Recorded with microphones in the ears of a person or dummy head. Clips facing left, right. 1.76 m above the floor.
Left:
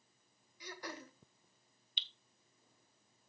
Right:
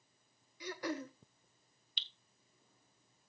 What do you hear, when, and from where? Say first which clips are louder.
0.6 s throat clearing: right 8 dB; 55° right (ahead or behind), 0.8 m
2.0 s dripping: even; 40° right (ahead or behind), 0.5 m